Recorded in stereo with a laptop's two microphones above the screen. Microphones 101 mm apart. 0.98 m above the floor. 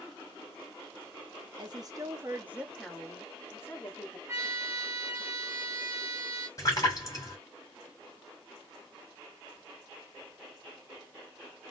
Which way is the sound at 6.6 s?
35° left (ahead or behind).